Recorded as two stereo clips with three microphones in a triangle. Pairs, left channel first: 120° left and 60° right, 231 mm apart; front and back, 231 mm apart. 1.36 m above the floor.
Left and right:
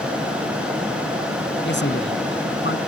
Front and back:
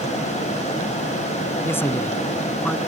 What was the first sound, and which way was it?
A man speaking, 80° left.